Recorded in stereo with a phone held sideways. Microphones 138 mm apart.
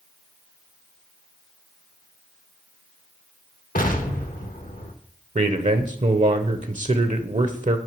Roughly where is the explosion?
Left.